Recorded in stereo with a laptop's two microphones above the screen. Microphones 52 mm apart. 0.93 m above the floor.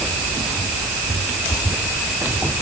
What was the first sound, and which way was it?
Only background noise.